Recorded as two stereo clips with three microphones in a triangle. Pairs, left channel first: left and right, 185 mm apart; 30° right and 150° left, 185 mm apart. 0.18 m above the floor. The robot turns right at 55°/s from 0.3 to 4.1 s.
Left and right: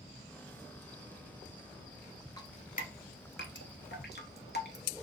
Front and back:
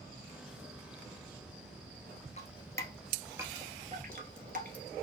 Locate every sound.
2.4 s dripping: 20° left, 0.7 m; by 4.8 s 115° left, 0.7 m